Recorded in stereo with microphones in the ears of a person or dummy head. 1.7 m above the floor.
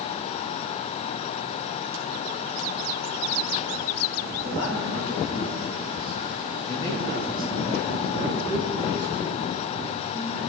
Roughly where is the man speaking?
Left.